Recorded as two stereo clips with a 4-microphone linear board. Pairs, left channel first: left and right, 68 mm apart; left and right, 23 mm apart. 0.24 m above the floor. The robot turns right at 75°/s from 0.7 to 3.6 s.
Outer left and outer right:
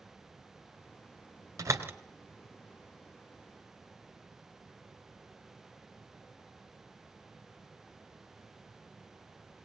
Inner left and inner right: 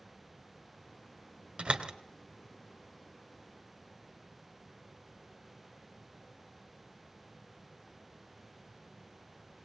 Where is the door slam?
55° right (ahead or behind), 2 m; by 1.9 s 30° right (ahead or behind), 2 m.